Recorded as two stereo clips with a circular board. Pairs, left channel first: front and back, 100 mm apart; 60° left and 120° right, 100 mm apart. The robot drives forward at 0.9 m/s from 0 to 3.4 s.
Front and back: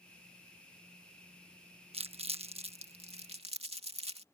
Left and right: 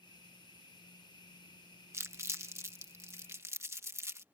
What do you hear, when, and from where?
1.9 s crumpling: straight behind